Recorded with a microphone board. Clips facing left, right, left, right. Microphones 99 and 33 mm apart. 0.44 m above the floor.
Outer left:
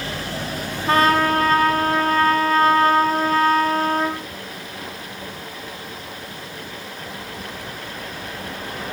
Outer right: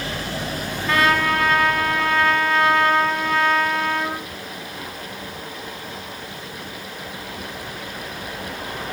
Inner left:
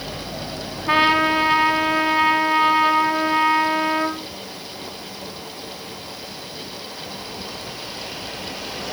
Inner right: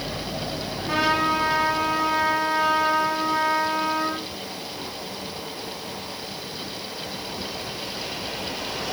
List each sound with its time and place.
0.9 s a trumpet: 40° left (ahead or behind), 3 m